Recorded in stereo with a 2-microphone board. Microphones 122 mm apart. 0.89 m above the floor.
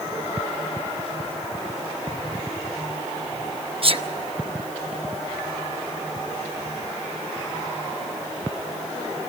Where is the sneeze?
50° right (ahead or behind), 1.0 m.